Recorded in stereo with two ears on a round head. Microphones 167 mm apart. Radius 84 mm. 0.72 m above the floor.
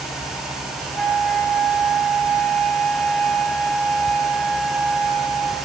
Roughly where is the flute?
Centre.